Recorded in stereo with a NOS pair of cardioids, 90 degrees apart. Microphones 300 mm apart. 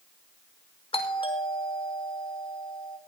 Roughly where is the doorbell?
Ahead.